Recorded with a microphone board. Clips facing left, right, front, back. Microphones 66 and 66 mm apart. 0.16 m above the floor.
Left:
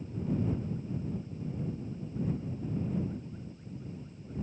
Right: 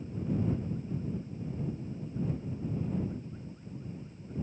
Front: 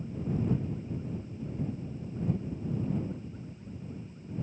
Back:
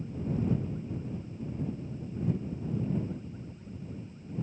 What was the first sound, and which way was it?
Only background noise.